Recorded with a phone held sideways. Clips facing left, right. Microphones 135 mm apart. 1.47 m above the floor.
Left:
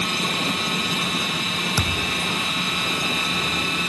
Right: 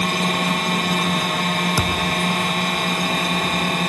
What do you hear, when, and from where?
0.0 s a drone: 60° right (ahead or behind)
1.8 s a thud: 10° right (ahead or behind)